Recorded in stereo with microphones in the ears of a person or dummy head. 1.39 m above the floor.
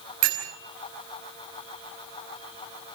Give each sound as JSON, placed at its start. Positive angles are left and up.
{"t": 0.2, "sound": "a bell", "side_deg": -45, "distance_m": 4.5}